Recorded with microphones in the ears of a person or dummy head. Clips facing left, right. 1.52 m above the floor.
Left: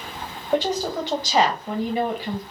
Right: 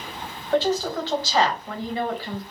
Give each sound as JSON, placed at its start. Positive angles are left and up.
{"t": 0.5, "sound": "a woman speaking", "side_deg": 15, "distance_m": 0.8}